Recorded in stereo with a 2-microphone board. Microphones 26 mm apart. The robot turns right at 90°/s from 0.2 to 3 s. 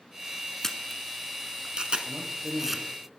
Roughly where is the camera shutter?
Centre.